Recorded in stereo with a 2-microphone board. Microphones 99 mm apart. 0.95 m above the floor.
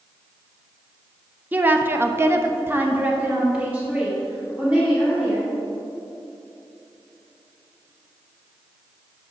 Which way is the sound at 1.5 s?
20° right (ahead or behind).